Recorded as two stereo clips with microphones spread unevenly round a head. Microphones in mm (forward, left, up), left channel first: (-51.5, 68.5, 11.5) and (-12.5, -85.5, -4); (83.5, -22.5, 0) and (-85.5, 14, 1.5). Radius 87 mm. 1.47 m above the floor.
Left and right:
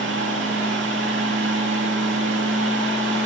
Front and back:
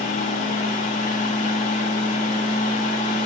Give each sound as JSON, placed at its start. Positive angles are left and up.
{"t": 0.0, "sound": "a fan", "azimuth_deg": -60, "distance_m": 2.5}